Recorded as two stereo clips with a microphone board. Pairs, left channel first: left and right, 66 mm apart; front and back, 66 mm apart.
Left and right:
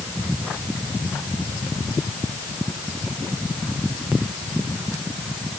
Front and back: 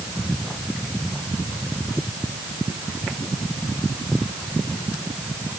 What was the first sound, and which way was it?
Only background noise.